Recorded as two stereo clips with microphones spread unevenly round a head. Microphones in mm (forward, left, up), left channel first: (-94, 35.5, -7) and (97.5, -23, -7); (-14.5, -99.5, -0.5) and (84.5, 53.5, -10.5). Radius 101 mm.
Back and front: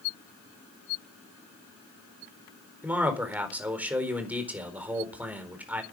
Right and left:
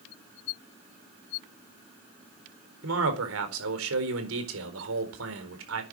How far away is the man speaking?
About 4 m.